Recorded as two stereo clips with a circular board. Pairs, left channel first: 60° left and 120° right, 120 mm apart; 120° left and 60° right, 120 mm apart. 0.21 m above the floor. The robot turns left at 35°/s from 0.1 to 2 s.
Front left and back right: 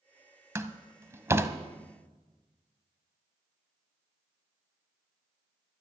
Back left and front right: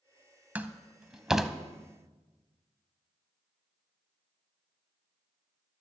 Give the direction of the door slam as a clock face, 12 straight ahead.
4 o'clock.